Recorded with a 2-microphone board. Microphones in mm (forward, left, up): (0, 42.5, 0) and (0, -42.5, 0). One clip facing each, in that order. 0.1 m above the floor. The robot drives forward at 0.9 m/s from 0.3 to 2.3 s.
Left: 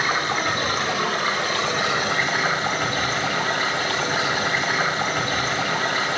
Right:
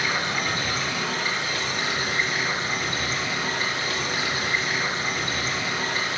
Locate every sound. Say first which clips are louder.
0.0 s running water: left 4 dB; 45° left (ahead or behind), 2 m; by 6.2 s 80° left, 1.6 m